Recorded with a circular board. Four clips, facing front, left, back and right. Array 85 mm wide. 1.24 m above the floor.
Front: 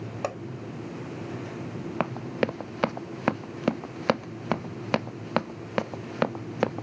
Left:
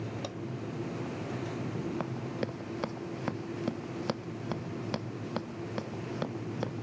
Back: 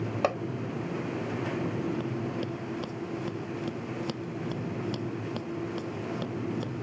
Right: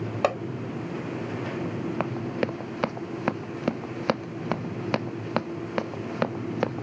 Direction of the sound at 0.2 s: 110° right.